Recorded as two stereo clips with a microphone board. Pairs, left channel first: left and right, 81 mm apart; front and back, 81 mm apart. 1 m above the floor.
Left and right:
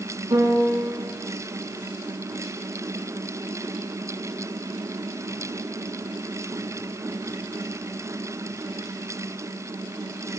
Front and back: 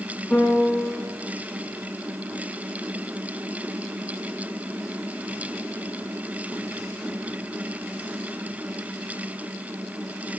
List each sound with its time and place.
0.3 s a piano: 65° right, 8 m